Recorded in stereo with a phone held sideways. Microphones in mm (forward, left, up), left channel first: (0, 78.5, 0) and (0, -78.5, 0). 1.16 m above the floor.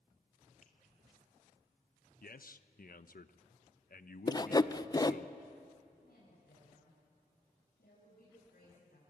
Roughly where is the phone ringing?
I don't hear a phone ringing.